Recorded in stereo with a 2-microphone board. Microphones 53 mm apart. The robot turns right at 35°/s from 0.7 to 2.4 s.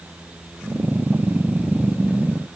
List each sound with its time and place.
Only background noise.